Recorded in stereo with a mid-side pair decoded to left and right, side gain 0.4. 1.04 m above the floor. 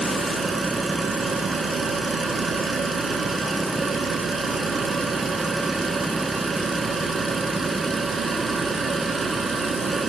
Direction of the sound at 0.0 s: 45° right.